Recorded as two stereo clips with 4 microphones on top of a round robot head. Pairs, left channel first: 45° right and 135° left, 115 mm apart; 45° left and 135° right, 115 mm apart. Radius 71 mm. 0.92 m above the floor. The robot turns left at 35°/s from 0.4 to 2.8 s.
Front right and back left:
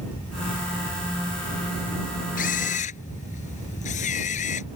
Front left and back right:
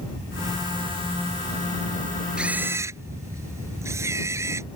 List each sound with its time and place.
2.4 s a camera shutter: 55° right; by 4.7 s 70° right